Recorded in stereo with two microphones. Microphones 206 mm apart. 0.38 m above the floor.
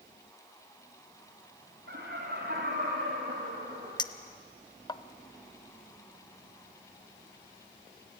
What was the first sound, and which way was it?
Laughter, 60° right (ahead or behind).